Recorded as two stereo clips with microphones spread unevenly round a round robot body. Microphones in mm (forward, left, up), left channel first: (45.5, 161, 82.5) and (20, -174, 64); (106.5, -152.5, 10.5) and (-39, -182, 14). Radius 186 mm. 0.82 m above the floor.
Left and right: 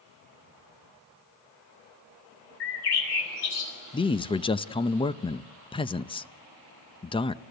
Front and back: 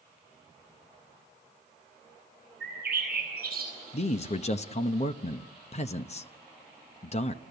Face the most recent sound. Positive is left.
turn(degrees=10)